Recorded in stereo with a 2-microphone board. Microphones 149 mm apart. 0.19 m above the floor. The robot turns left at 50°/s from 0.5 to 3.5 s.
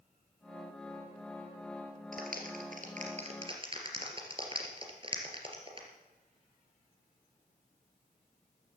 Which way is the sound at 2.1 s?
65° right (ahead or behind).